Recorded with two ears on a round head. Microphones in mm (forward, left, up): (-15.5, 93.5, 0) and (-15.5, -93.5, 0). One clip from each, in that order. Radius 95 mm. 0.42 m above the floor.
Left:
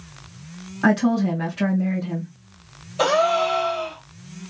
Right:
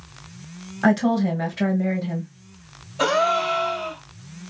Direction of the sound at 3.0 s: 25° left (ahead or behind).